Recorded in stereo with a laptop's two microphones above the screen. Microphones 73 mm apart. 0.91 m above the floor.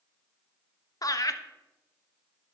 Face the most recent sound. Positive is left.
turn(degrees=55)  # may be behind; listen again after turning